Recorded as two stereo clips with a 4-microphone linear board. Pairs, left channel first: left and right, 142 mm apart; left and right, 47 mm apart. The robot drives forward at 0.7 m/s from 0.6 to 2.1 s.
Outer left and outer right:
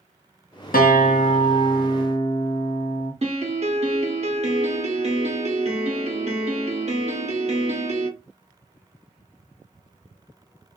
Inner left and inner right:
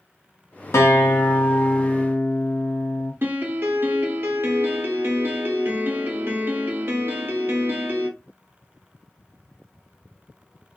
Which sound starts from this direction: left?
A guitar, at 0.7 s.